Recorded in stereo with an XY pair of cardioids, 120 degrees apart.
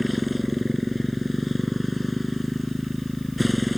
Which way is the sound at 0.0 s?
5° left.